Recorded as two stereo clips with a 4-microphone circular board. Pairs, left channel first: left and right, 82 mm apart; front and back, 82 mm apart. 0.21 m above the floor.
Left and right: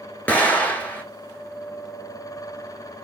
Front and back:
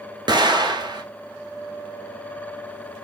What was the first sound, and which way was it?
An explosion, 160° left.